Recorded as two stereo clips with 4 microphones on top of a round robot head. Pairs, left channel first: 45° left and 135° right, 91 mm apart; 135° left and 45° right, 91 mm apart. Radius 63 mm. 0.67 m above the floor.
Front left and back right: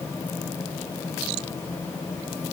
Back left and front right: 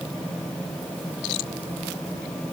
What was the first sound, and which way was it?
Only background noise.